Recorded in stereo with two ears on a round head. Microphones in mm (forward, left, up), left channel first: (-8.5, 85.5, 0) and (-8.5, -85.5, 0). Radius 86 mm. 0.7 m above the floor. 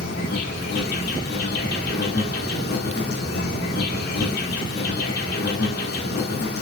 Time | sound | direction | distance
0.0 | an insect | 55° left (ahead or behind) | 3 m